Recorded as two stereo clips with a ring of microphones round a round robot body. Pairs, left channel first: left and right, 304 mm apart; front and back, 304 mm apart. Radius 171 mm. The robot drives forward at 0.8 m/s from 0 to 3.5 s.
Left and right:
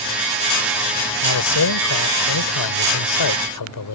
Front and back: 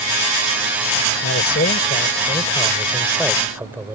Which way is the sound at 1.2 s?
55° left.